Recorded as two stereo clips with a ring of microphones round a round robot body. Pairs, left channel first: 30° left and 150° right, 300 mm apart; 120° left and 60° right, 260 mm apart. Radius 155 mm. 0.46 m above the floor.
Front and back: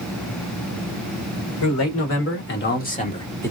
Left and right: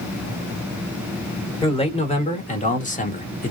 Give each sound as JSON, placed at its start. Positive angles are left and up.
{"t": 1.6, "sound": "a man speaking", "azimuth_deg": 55, "distance_m": 1.8}